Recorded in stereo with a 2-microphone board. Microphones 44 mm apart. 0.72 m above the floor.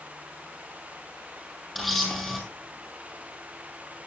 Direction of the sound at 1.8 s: Centre (ahead or behind).